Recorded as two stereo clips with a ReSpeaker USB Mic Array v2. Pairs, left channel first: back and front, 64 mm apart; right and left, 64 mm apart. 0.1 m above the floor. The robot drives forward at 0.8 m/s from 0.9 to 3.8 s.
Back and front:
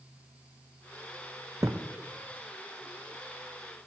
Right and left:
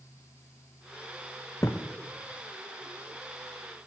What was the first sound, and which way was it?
A thud, 40° right.